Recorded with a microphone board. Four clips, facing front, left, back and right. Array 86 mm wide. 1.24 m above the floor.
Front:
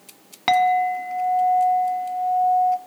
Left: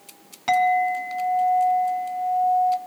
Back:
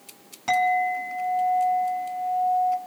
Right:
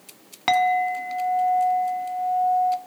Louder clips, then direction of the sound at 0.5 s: Left 1 dB, front 4 dB; 35° right.